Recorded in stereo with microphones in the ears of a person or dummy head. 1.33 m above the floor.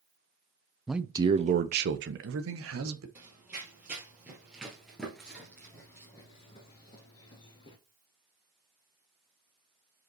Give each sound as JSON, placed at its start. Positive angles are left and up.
{"t": 0.9, "sound": "a man speaking", "side_deg": -5, "distance_m": 0.6}
{"t": 3.1, "sound": "running footsteps", "side_deg": -10, "distance_m": 2.5}